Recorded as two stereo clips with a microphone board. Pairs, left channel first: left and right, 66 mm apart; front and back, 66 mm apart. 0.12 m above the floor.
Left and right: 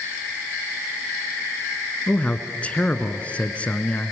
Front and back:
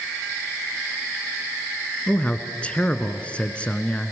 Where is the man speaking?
45° left, 1.4 m.